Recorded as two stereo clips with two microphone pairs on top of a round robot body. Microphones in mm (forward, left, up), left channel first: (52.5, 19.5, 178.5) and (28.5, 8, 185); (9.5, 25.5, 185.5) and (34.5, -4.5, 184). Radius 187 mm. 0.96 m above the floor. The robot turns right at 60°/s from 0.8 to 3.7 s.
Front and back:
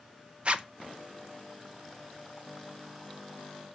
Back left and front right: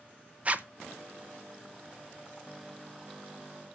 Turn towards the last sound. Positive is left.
turn(degrees=70)